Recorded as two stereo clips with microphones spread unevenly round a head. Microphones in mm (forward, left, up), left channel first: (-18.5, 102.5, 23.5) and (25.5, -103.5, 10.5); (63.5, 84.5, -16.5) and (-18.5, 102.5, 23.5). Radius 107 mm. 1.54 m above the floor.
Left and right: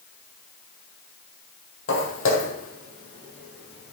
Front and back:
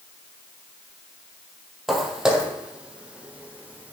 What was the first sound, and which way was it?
Footsteps, 100° left.